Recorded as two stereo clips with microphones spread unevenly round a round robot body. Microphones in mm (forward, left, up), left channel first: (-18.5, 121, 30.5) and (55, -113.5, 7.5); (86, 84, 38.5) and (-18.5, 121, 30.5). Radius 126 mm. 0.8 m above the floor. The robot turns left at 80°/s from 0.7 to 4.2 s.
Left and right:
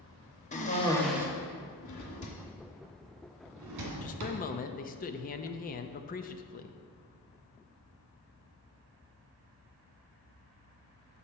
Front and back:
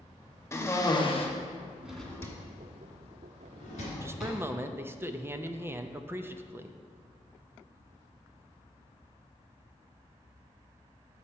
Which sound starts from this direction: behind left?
A man speaking, at 4.0 s.